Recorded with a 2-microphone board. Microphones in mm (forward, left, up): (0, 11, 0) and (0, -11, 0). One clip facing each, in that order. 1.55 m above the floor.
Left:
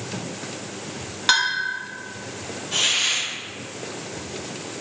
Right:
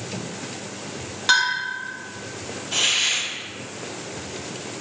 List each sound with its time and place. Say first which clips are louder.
1.3 s a bell: even; 10° left (ahead or behind), 2 m
2.7 s a hiss: even; 5° right (ahead or behind), 4 m